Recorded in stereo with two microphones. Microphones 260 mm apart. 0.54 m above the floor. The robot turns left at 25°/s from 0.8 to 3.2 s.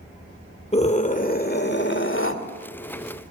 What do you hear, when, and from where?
0.7 s a scream: 150° left, 2.0 m; by 2.4 s 115° left, 2.0 m